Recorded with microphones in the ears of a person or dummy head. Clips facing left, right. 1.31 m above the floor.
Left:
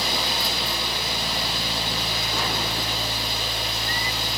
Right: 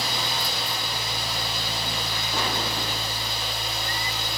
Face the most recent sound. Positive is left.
turn(degrees=50)  # may be behind; listen again after turning